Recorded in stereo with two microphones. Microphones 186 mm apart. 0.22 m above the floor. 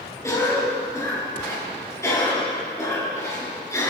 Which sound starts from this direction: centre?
A cough, at 0.2 s.